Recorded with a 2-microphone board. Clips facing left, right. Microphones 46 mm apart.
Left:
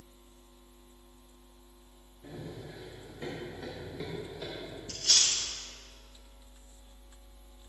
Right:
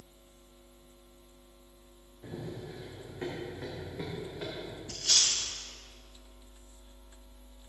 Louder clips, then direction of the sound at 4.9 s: Left 1 dB; 5° right (ahead or behind).